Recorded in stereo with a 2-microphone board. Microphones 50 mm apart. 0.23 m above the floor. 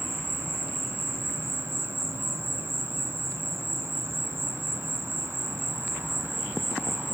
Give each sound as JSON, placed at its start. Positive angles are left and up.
{"t": 0.0, "sound": "an insect", "side_deg": -55, "distance_m": 2.0}